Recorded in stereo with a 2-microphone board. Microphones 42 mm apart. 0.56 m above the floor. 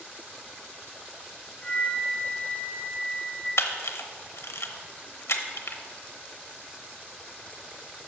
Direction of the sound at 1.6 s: 25° left (ahead or behind).